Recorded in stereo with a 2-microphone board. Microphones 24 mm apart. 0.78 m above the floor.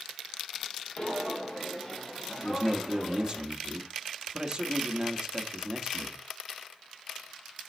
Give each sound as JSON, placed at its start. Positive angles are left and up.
{"t": 1.0, "sound": "footsteps", "side_deg": 35, "distance_m": 1.6}
{"t": 2.4, "sound": "a man speaking", "side_deg": -25, "distance_m": 1.3}